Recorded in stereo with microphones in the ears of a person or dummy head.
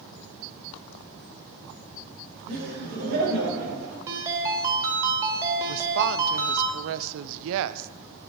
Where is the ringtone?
15° right (ahead or behind), 2 m.